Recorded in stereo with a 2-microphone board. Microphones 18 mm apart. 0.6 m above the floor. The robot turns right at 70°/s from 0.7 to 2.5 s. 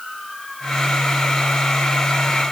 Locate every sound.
Only background noise.